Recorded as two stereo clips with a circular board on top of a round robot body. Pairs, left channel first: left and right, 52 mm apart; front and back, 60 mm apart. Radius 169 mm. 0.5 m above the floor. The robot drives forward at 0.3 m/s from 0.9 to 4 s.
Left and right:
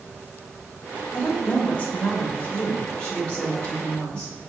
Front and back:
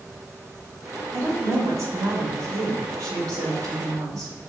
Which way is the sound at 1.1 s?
150° left.